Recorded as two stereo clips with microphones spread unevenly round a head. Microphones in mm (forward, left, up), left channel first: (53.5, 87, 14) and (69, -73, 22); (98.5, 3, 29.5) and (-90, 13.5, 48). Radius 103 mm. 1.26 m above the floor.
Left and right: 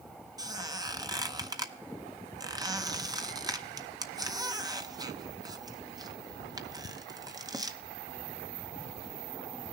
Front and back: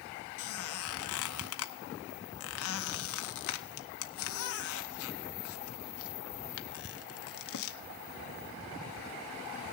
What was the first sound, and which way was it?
A squeak, 15° right.